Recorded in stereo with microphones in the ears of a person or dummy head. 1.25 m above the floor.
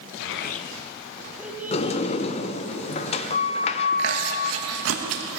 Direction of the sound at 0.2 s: 65° left (ahead or behind).